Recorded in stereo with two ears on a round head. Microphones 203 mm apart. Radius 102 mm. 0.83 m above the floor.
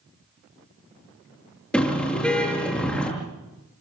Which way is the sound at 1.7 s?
5° left (ahead or behind).